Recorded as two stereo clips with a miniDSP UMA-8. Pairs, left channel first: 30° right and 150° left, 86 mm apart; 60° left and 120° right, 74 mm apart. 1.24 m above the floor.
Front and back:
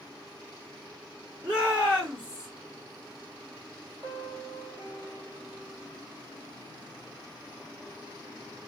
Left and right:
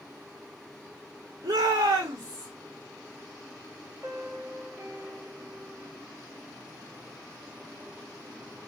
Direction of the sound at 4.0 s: 175° right.